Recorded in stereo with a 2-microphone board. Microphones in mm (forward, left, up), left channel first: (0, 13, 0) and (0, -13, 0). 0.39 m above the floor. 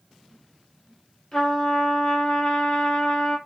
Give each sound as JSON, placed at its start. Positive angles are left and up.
{"t": 1.3, "sound": "a trumpet", "side_deg": 30, "distance_m": 3.0}